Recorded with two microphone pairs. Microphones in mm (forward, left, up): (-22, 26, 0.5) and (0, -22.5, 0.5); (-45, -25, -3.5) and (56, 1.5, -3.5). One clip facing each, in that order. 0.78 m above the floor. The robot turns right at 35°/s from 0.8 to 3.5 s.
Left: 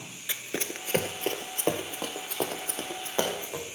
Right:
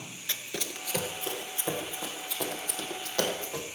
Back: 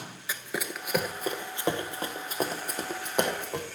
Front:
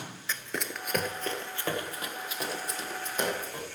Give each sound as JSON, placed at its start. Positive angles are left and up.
{"t": 0.3, "sound": "running footsteps", "azimuth_deg": 140, "distance_m": 0.7}